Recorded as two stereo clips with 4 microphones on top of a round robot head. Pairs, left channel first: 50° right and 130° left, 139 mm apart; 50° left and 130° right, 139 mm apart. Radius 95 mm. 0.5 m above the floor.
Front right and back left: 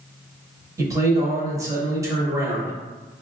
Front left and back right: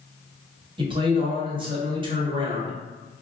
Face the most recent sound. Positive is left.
turn(degrees=-170)